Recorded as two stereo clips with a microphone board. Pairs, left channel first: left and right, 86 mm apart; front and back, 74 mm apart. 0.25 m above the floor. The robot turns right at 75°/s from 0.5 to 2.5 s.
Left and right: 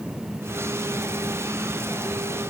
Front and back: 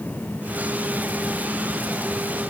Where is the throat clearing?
No throat clearing in this recording.